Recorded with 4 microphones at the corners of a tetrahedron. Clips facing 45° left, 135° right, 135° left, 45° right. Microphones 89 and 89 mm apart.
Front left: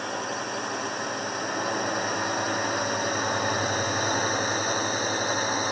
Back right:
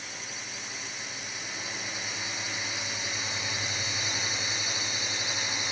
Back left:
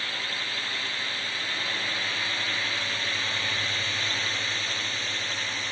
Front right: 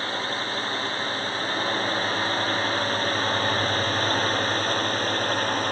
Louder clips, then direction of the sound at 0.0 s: Front left 13 dB, front right 6 dB; 10° left.